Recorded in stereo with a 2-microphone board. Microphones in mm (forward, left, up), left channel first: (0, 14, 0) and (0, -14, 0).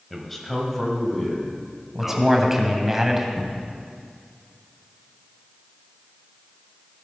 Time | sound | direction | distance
0.1 | a man speaking | 5° left (ahead or behind) | 1.4 m
1.9 | a man speaking | 10° right (ahead or behind) | 1.2 m
3.4 | a cupboard door | 25° left (ahead or behind) | 1.1 m